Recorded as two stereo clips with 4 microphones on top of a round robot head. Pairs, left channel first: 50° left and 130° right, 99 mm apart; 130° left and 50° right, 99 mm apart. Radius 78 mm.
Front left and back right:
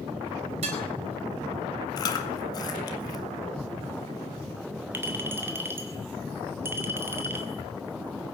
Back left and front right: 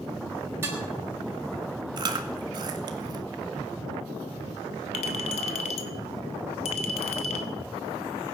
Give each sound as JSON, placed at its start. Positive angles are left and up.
{"t": 0.6, "sound": "dishes clattering", "azimuth_deg": -120, "distance_m": 4.5}
{"t": 2.0, "sound": "chewing", "azimuth_deg": 0, "distance_m": 1.8}
{"t": 4.9, "sound": "a clink", "azimuth_deg": 160, "distance_m": 1.4}